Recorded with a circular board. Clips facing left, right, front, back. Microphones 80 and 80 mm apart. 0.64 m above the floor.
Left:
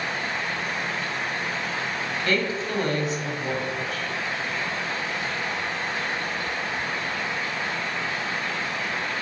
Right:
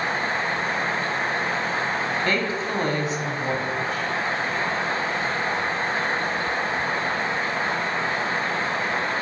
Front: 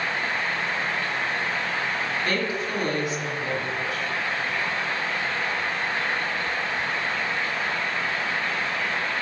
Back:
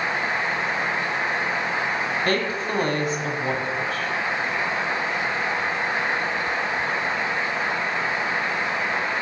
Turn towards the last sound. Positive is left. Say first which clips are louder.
# right 1 dB, back 3 dB
turn(degrees=-140)